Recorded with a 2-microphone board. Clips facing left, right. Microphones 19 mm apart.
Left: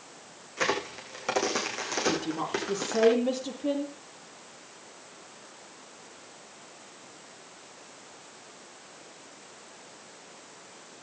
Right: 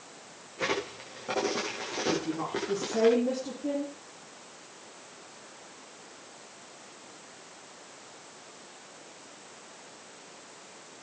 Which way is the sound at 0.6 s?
65° left (ahead or behind).